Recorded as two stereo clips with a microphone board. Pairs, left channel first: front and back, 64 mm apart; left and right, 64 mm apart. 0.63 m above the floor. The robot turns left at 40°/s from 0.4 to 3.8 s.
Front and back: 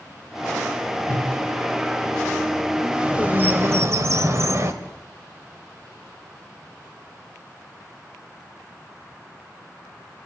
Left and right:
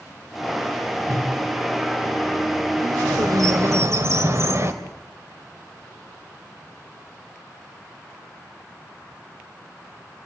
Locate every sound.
1.1 s a whoosh: 55° right, 2.5 m; by 1.3 s 65° right, 2.5 m
2.8 s a bird: 95° right, 2.0 m; by 4.7 s 135° right, 2.0 m